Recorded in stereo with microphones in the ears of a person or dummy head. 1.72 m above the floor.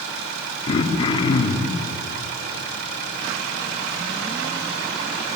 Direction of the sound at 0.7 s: 25° left (ahead or behind).